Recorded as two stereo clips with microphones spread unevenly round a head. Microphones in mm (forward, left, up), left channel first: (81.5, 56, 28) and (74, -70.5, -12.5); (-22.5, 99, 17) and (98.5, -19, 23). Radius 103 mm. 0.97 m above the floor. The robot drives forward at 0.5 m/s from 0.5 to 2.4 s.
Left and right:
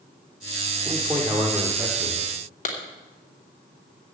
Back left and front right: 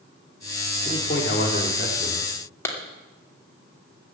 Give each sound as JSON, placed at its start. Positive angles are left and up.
{"t": 0.8, "sound": "a man speaking", "azimuth_deg": -175, "distance_m": 1.7}
{"t": 2.6, "sound": "a clap", "azimuth_deg": 60, "distance_m": 2.5}